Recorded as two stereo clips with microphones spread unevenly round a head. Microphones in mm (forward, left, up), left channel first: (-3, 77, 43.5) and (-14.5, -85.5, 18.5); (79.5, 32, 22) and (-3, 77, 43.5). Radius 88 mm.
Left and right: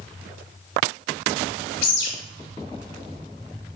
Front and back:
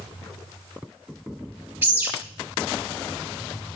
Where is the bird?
90° left, 1.7 m.